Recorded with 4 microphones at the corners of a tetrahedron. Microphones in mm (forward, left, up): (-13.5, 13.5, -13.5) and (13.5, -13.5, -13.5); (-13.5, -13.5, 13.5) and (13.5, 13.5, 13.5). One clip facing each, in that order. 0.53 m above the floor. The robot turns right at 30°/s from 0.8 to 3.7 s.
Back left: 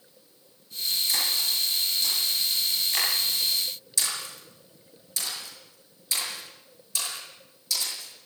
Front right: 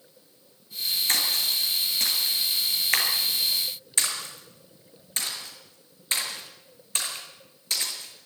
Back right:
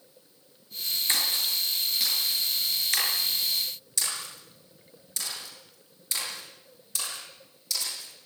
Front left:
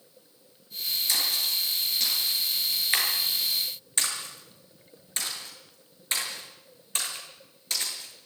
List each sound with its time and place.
1.1 s a splash: 80° right, 6 m; by 8.3 s straight ahead, 6 m